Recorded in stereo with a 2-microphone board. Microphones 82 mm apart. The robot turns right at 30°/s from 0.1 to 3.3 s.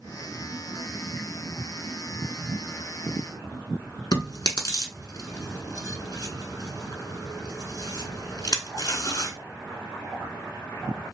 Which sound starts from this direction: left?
Chewing, at 4.1 s.